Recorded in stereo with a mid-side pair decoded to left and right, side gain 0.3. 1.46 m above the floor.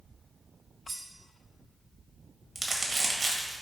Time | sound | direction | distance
0.9 | cutlery clinking | 55° right | 2.5 m
2.5 | crumpling | 50° right | 1.7 m